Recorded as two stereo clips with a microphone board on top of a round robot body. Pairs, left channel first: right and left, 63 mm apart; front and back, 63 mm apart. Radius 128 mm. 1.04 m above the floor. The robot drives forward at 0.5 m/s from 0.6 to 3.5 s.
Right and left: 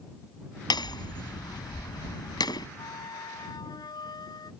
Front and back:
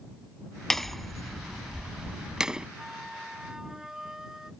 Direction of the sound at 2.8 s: 95° right.